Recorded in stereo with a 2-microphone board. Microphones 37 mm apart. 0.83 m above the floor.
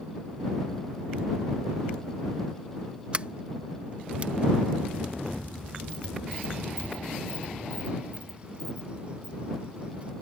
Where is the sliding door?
35° right (ahead or behind).